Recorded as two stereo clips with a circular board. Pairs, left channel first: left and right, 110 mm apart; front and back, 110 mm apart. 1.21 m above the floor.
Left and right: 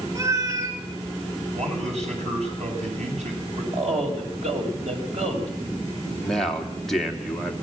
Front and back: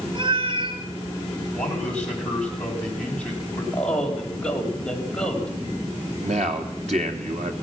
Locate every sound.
0.1 s a cat meowing: 145° right, 2 m
1.5 s a man speaking: 80° right, 9 m
3.7 s a man speaking: 80° right, 6 m
6.2 s a man speaking: 175° left, 3 m